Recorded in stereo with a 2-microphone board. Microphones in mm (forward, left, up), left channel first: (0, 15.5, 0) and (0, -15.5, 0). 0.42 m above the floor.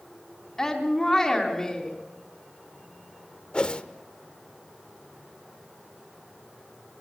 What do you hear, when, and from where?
0.6 s a woman speaking: 15° left (ahead or behind), 3.5 m
3.5 s a whoosh: 35° left (ahead or behind), 1.0 m